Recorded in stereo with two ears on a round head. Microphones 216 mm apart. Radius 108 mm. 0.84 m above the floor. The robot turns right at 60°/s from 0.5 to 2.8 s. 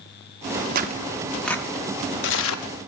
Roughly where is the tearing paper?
Right.